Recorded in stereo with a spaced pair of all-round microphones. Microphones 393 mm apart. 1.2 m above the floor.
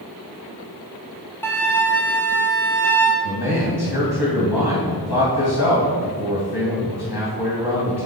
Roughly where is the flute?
Centre.